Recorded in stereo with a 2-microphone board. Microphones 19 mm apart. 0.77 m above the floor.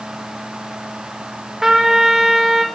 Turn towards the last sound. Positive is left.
turn(degrees=-30)  # may be behind; listen again after turning